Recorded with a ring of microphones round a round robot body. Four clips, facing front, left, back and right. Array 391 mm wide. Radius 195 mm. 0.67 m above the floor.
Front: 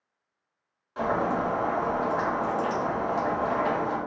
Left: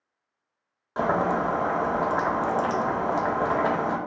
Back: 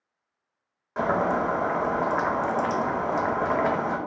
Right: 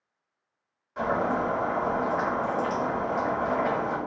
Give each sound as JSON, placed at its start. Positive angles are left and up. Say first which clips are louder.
{"t": 1.0, "sound": "boiling", "louder": "left 2 dB, back 2 dB", "azimuth_deg": 120, "distance_m": 0.6}